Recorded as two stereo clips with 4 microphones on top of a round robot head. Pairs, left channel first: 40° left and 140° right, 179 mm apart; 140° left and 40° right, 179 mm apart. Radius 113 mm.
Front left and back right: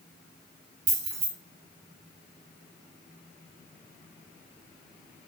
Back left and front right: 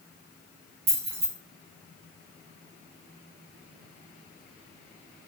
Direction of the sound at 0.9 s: 100° right.